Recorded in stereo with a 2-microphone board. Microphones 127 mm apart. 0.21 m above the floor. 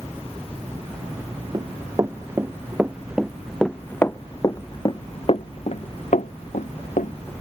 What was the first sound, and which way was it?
Running footsteps, 30° right (ahead or behind).